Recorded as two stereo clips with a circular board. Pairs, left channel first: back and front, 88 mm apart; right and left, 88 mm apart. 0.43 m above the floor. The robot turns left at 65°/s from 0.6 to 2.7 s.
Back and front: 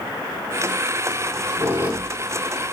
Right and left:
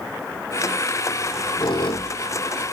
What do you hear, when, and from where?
1.2 s a squeak: 30° right, 2 m; by 2.7 s 125° right, 2 m